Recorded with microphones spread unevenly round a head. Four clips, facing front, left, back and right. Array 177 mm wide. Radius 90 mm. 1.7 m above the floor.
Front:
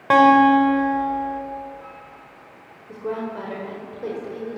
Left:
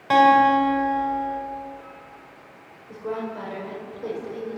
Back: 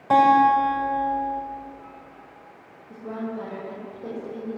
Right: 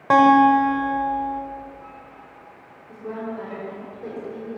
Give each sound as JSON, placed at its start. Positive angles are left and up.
{"t": 0.1, "sound": "a guitar", "azimuth_deg": -35, "distance_m": 6.5}
{"t": 2.9, "sound": "a woman speaking", "azimuth_deg": 10, "distance_m": 8.0}